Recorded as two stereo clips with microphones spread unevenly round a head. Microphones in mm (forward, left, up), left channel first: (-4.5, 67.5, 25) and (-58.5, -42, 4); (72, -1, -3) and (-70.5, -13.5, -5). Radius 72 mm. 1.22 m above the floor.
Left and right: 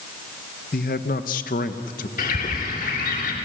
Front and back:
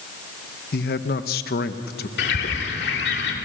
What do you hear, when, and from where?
0.7 s a man speaking: 30° left, 1.3 m
2.2 s a bird: 25° left, 3 m